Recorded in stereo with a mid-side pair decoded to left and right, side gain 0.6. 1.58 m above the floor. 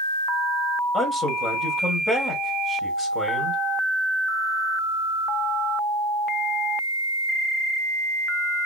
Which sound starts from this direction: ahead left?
A man speaking, at 0.9 s.